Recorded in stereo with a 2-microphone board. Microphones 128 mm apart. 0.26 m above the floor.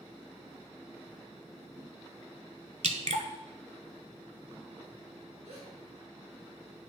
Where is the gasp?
70° right (ahead or behind), 4 m.